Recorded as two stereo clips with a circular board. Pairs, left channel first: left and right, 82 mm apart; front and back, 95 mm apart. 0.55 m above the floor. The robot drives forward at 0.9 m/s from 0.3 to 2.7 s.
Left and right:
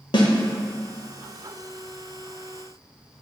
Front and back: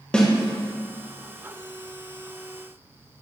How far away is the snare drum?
About 1.1 m.